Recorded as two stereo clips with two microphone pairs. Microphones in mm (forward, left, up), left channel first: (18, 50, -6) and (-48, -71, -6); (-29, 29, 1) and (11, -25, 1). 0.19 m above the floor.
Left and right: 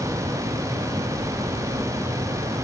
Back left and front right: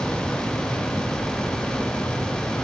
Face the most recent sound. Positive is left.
No sound to turn to.